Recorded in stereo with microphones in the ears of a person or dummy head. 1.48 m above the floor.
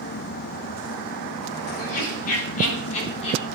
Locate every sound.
1.8 s laughter: 50° left (ahead or behind), 4 m; by 3.4 s 30° left (ahead or behind), 4 m